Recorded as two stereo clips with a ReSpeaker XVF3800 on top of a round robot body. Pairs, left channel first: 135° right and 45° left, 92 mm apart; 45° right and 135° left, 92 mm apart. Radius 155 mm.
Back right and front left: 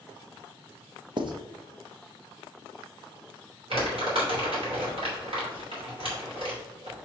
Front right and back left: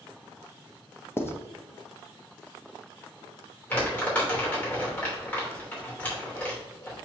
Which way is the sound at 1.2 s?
15° left.